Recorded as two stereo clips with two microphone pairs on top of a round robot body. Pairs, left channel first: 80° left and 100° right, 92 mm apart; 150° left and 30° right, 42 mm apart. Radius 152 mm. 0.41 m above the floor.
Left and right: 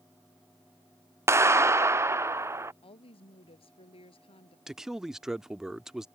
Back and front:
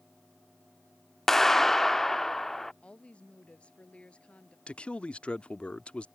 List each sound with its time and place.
1.3 s a clap: 135° right
2.8 s a woman speaking: 90° left
4.7 s a man speaking: 170° right